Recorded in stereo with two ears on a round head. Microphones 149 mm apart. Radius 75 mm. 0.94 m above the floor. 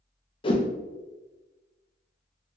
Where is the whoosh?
30° left (ahead or behind), 0.5 m.